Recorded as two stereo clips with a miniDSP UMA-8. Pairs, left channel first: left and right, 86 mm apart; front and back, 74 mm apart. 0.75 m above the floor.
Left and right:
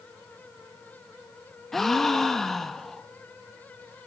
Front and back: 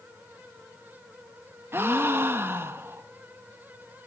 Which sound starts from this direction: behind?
A gasp, at 1.7 s.